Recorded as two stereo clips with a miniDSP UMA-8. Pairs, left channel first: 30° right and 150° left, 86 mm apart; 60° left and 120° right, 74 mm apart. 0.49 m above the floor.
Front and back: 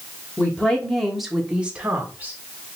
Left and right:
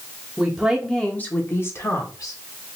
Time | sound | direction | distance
0.4 | a woman speaking | 70° right | 0.7 m